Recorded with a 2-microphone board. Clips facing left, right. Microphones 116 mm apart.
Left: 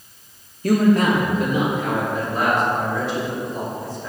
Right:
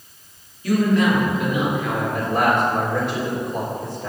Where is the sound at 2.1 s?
60° right (ahead or behind), 3 m.